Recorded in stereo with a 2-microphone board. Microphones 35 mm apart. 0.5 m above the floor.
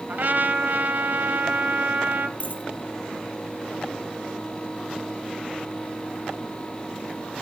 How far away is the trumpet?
About 1.1 m.